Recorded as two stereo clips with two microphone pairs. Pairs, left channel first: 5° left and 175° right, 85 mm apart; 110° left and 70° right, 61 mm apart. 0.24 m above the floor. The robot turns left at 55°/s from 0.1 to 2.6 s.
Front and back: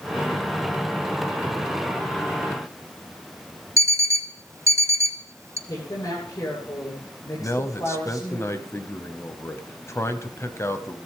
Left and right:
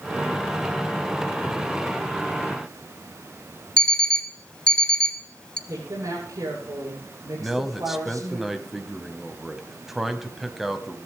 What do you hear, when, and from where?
3.8 s an alarm clock: 170° left, 0.9 m
5.7 s a woman speaking: 45° right, 9.5 m
7.4 s a man speaking: 15° left, 1.3 m